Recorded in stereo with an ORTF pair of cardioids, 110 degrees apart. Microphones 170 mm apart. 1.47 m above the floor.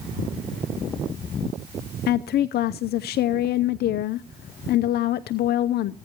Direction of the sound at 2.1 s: 65° left.